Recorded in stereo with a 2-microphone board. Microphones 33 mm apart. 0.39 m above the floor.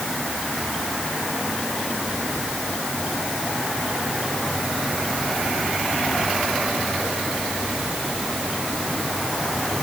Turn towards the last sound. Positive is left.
No sound to turn to.